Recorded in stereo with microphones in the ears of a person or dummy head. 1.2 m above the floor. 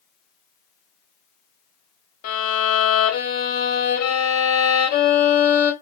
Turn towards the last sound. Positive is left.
turn(degrees=40)  # may be behind; listen again after turning